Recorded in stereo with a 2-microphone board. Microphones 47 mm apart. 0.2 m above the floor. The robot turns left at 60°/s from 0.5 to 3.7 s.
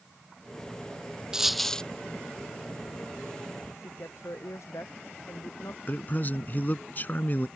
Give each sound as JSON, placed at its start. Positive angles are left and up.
{"t": 1.3, "sound": "a dropped coin", "azimuth_deg": -170}
{"t": 3.8, "sound": "a woman speaking", "side_deg": 75}
{"t": 5.9, "sound": "a man speaking", "side_deg": 40}